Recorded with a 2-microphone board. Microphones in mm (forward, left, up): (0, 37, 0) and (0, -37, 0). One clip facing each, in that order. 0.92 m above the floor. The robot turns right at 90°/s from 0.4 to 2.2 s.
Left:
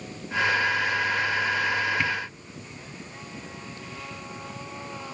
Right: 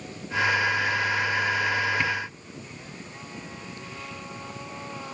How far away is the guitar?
I don't hear a guitar.